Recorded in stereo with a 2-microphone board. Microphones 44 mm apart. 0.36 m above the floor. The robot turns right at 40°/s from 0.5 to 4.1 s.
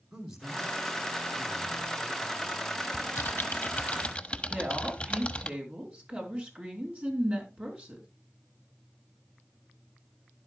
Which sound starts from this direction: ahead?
A man speaking, at 0.1 s.